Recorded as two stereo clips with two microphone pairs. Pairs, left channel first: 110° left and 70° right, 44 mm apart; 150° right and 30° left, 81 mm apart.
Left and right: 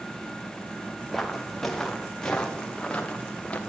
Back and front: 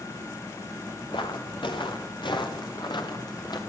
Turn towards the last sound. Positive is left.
turn(degrees=175)